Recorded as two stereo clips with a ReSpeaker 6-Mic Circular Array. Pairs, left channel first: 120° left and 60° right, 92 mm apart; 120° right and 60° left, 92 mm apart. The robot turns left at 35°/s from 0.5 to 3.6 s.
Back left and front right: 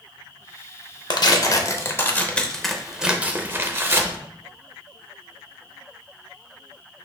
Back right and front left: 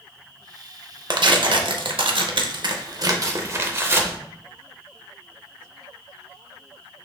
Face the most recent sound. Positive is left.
turn(degrees=0)